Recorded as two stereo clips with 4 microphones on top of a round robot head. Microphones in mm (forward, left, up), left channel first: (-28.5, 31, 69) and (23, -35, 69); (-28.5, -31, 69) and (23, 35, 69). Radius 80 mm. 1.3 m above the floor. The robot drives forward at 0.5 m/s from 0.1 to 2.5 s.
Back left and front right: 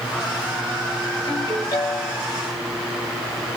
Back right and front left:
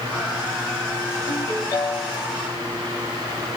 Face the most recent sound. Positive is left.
turn(degrees=175)